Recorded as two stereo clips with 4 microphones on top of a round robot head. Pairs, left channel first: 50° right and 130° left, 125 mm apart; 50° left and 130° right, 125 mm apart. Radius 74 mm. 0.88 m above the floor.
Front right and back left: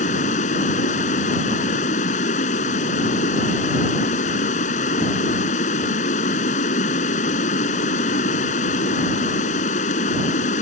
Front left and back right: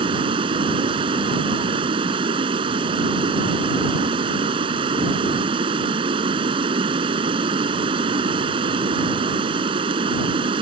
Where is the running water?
80° right.